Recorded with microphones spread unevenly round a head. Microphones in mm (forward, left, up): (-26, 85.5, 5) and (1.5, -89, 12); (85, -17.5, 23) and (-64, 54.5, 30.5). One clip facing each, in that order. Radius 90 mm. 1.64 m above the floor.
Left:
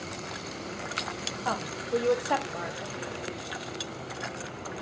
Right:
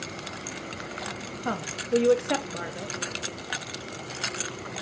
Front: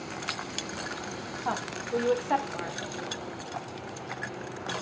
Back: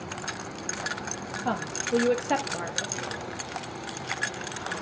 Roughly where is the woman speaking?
Behind right.